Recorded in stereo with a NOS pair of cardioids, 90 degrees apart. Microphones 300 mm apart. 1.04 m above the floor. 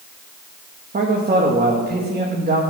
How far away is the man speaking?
About 1.4 m.